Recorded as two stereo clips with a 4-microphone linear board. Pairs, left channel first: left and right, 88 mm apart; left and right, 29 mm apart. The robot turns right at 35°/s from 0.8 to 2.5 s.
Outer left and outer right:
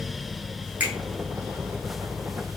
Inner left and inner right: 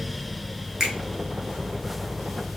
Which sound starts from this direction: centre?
A finger snap, at 0.8 s.